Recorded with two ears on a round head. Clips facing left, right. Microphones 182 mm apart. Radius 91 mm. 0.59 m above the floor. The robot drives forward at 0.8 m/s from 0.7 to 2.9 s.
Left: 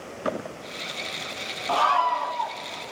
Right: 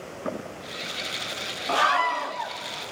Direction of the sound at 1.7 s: 20° right (ahead or behind).